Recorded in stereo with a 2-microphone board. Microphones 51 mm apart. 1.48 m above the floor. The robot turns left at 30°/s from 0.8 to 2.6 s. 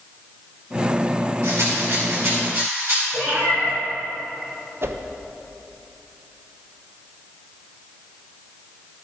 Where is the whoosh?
45° right (ahead or behind), 0.6 m.